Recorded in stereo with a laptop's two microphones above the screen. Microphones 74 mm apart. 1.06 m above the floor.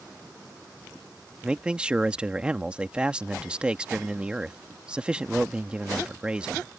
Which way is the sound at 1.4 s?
15° right (ahead or behind).